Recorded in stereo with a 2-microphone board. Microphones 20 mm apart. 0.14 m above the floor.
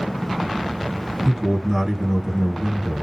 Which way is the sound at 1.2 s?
30° right (ahead or behind).